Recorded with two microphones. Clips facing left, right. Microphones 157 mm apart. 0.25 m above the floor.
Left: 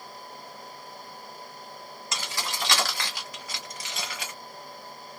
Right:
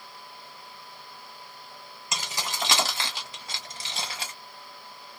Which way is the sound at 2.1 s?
20° right (ahead or behind).